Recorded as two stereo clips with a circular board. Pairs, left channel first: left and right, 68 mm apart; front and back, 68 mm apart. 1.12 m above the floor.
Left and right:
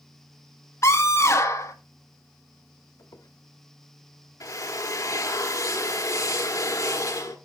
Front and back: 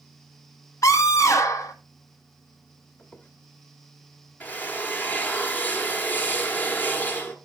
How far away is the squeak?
About 1.3 m.